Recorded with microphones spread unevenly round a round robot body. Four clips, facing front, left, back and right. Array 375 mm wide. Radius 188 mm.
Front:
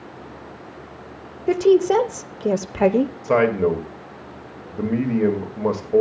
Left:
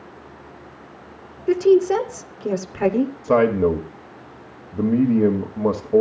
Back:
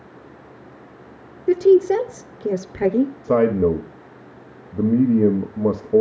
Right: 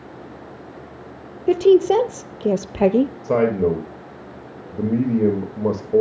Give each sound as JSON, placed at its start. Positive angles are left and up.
{"t": 1.5, "sound": "a woman speaking", "azimuth_deg": -85, "distance_m": 0.8}
{"t": 3.2, "sound": "a man speaking", "azimuth_deg": 165, "distance_m": 1.4}